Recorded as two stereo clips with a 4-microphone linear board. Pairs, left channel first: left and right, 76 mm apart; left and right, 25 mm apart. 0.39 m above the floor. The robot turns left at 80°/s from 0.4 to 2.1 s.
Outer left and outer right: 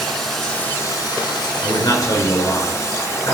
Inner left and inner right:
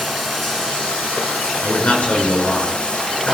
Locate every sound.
0.0 s running water: 175° left, 2 m; by 3.3 s 40° left, 2 m
1.6 s a man speaking: 90° left, 4.5 m; by 3.3 s 50° left, 4.5 m